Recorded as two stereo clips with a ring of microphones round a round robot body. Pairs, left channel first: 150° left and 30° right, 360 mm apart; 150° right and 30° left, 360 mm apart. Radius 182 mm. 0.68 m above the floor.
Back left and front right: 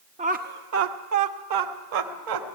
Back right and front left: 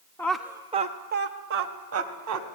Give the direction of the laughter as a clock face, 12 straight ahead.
3 o'clock.